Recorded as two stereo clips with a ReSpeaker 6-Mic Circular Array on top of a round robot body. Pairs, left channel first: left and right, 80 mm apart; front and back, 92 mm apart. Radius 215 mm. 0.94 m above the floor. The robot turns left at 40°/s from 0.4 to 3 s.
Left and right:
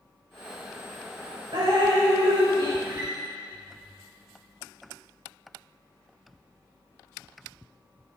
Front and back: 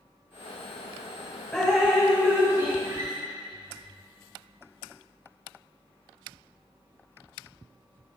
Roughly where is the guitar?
Behind right.